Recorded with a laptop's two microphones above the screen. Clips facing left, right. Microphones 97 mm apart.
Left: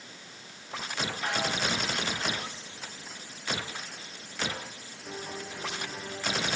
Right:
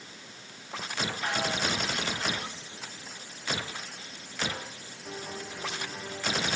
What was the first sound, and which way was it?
Only background noise.